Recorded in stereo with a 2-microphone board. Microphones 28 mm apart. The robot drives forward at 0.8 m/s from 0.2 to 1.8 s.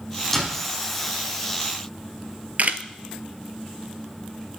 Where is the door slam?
10° left (ahead or behind), 3.5 m.